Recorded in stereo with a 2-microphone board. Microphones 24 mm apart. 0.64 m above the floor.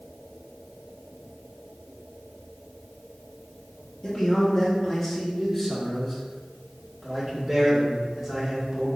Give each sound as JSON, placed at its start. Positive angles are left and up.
{"t": 4.0, "sound": "a man speaking", "side_deg": 35, "distance_m": 1.3}